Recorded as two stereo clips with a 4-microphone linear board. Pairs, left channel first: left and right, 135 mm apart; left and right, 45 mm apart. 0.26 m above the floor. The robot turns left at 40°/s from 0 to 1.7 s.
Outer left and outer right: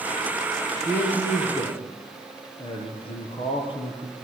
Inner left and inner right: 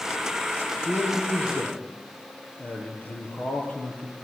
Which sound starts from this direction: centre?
A man speaking, at 0.8 s.